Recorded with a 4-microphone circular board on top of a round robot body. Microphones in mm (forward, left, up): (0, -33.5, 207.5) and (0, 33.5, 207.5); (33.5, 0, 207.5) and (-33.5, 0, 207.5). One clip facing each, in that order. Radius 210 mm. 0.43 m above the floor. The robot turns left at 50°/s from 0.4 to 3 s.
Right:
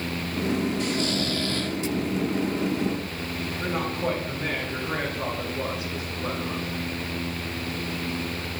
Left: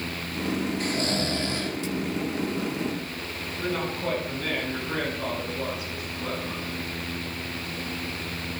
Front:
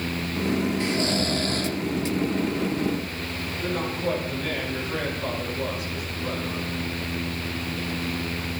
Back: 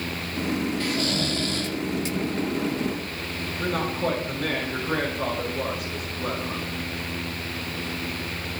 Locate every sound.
0.8 s snoring: 60° left, 2 m; by 1.8 s 15° left, 2 m
3.6 s a man speaking: 150° right, 6.5 m